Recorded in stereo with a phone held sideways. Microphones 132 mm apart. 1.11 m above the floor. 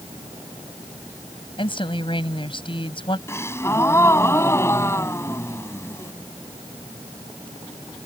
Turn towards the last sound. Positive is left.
turn(degrees=20)  # may be behind; listen again after turning